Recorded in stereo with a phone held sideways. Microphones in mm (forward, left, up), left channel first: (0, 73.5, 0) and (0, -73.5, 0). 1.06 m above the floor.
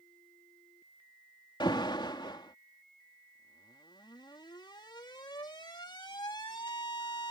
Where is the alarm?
30° left (ahead or behind).